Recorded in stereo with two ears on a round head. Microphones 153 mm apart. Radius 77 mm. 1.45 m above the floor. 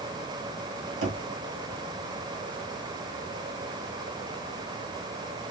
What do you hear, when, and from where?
1.0 s knocking: 75° right (ahead or behind), 2.5 m